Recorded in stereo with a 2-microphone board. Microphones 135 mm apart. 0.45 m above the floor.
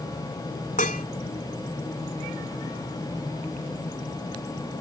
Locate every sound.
0.8 s dishes clattering: 75° left (ahead or behind)